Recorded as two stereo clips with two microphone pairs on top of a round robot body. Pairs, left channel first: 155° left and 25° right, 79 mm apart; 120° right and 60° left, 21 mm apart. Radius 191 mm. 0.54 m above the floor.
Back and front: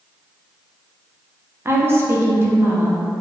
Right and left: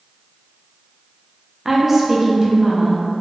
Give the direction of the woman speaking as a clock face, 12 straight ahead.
12 o'clock.